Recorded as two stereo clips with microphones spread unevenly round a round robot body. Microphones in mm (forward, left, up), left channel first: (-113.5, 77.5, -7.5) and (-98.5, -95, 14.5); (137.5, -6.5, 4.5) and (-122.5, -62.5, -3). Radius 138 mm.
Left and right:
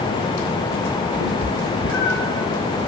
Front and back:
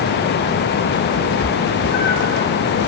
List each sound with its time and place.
1.2 s a cat meowing: 75° left, 3 m; by 2.4 s 50° left, 1.8 m